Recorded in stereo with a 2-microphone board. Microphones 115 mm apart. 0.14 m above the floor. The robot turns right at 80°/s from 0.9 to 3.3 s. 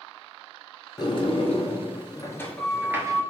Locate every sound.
1.0 s a sliding door: 40° left, 1.0 m; by 3.2 s 140° right, 1.0 m